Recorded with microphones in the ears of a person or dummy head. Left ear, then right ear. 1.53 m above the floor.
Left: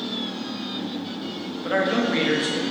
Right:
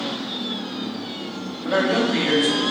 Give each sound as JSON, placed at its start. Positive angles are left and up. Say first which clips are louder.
{"t": 1.6, "sound": "a man speaking", "louder": "right 2 dB", "side_deg": 10, "distance_m": 0.6}